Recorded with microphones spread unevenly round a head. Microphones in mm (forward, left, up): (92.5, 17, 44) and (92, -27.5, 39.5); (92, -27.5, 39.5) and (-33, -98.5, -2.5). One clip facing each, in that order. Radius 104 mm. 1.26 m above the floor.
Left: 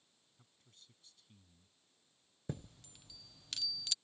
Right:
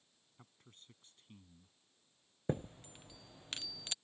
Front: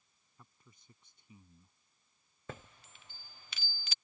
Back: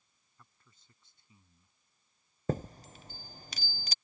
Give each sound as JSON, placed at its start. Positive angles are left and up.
{"t": 0.4, "sound": "a man speaking", "azimuth_deg": -40}
{"t": 2.5, "sound": "a chime", "azimuth_deg": -140}